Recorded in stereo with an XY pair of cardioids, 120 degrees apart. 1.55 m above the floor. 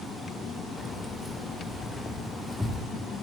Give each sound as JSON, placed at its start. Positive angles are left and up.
{"t": 0.8, "sound": "keys jangling", "azimuth_deg": 0, "distance_m": 4.5}